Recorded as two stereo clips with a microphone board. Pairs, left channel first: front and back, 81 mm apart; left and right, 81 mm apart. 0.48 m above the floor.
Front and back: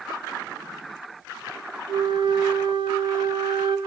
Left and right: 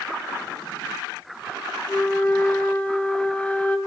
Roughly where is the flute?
Behind.